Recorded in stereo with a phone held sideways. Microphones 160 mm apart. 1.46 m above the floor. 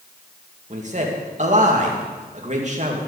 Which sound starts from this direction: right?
A man speaking, at 0.7 s.